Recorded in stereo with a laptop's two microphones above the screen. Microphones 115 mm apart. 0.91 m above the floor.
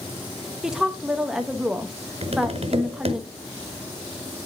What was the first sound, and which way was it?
A woman speaking, 5° right (ahead or behind).